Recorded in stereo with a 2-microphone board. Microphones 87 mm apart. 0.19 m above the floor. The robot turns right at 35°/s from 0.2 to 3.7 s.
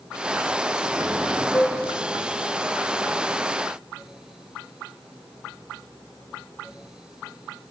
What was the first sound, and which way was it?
A cowbell, 25° left (ahead or behind).